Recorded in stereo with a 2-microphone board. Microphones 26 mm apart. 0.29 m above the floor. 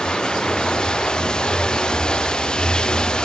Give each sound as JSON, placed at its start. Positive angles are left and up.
{"t": 0.0, "sound": "running water", "side_deg": 35}